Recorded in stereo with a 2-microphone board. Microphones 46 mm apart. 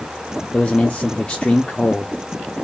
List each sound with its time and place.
0.5 s a man speaking: 20° left (ahead or behind), 0.5 m